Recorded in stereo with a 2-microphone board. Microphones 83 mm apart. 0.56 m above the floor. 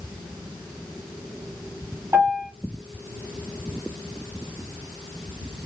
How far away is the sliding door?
No sliding door in this recording.